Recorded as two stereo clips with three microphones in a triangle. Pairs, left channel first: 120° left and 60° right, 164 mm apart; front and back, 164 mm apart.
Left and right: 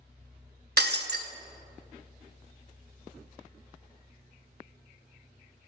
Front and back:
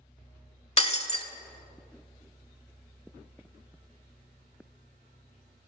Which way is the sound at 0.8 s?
55° right.